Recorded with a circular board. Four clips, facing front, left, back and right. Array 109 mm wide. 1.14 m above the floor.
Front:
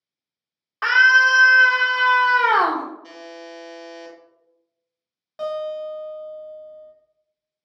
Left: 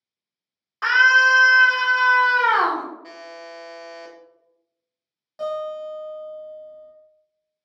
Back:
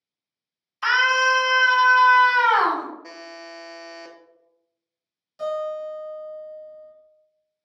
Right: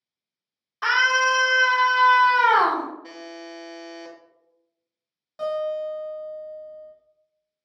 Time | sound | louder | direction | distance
0.8 | a scream | left 4 dB, front 4 dB | 20° left | 1.6 m
3.0 | a buzzer | even, front 1 dB | 170° left | 0.7 m
5.4 | a guitar | right 2 dB, even | straight ahead | 1.4 m